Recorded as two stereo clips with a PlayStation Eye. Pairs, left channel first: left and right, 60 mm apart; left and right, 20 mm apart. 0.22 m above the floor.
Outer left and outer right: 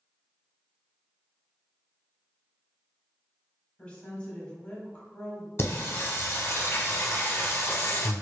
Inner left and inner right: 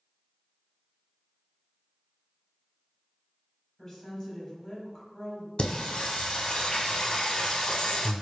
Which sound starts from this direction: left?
Singing, at 5.6 s.